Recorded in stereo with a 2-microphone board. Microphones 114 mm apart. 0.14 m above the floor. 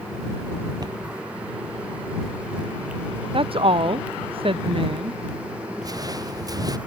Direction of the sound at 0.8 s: 35° right (ahead or behind).